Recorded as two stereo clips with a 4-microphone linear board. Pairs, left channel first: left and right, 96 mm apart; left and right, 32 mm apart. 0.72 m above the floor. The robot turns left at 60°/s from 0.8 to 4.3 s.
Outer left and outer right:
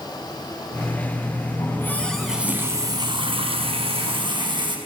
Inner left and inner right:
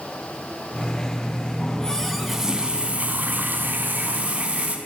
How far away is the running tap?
About 4.5 m.